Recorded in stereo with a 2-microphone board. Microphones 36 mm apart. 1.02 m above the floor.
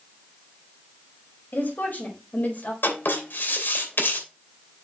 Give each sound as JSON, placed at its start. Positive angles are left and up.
{"t": 1.5, "sound": "a woman speaking", "side_deg": 60, "distance_m": 4.5}
{"t": 2.8, "sound": "writing", "side_deg": 80, "distance_m": 2.5}